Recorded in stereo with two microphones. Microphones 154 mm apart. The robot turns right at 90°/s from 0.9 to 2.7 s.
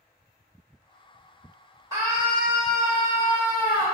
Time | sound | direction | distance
1.9 | a scream | 20° right (ahead or behind) | 1.2 m